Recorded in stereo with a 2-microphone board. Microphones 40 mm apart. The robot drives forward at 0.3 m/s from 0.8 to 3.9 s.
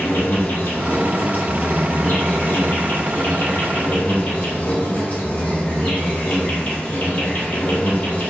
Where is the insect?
65° left (ahead or behind), 1.0 m; by 8.3 s 45° left (ahead or behind), 1.3 m.